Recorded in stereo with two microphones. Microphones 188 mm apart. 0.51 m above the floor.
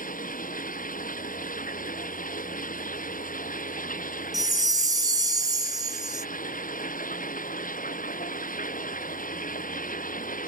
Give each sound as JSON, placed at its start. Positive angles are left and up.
{"t": 0.0, "sound": "running water", "side_deg": 45}
{"t": 4.3, "sound": "a chime", "side_deg": -20}